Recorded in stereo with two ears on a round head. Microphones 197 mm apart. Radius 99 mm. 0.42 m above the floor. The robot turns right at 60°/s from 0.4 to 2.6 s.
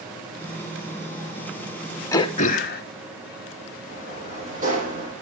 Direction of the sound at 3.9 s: 35° right (ahead or behind).